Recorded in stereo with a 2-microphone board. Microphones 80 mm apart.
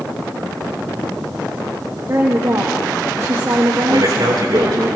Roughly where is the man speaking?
Right.